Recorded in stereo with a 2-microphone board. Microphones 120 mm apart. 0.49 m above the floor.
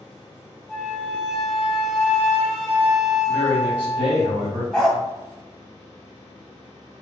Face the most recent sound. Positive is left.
turn(degrees=5)  # may be behind; listen again after turning